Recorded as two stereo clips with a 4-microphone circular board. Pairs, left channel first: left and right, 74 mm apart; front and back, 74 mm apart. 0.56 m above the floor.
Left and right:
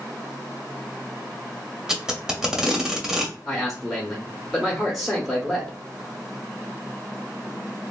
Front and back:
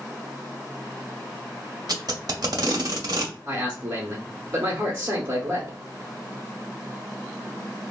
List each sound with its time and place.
1.9 s tape being pulled: 170° right, 0.6 m
3.5 s a man speaking: 170° left, 0.7 m